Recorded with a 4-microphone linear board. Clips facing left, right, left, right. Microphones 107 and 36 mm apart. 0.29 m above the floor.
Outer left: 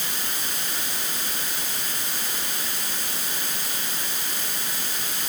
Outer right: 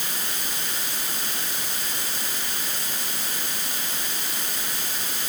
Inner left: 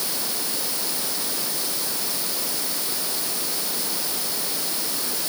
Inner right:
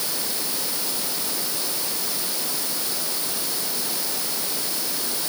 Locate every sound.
Only background noise.